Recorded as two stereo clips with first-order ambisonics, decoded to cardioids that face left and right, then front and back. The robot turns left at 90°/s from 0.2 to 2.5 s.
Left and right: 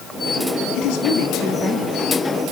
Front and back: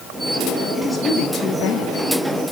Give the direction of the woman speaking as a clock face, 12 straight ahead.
9 o'clock.